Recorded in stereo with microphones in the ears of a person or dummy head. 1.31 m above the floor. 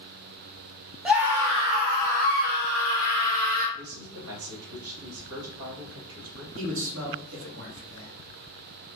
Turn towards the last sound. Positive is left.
turn(degrees=-70)  # may be behind; listen again after turning